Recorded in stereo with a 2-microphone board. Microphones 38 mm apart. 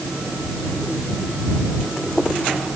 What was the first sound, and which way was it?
Only background noise.